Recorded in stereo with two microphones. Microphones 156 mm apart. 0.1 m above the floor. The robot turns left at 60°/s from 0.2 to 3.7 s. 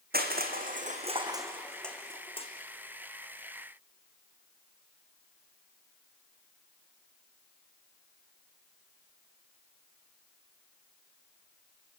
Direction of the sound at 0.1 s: 80° right.